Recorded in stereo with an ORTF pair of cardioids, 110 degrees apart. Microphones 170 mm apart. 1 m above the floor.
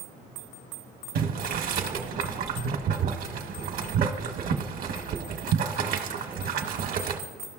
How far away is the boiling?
About 0.9 m.